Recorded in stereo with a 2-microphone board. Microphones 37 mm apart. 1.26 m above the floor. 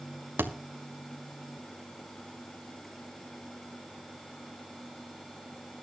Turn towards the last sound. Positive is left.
turn(degrees=-65)  # may be behind; listen again after turning